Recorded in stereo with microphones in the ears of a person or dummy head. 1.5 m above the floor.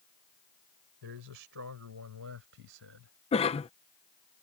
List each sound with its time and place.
1.0 s a man speaking: 70° right (ahead or behind); by 3.1 s 75° right (ahead or behind)
3.3 s a cough: 30° left (ahead or behind)